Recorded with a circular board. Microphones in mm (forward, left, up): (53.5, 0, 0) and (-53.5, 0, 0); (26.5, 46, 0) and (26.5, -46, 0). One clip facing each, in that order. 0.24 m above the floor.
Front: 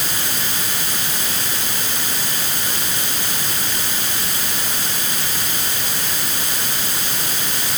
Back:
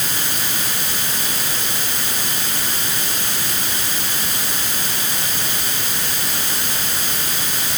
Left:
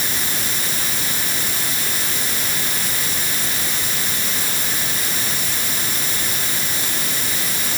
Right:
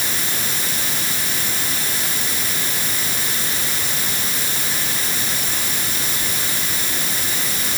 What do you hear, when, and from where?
Only background noise.